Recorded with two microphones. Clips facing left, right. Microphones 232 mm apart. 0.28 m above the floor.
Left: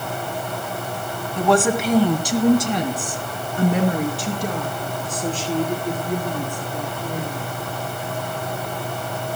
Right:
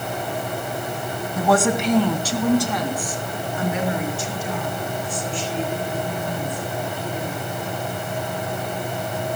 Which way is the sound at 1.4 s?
10° right (ahead or behind).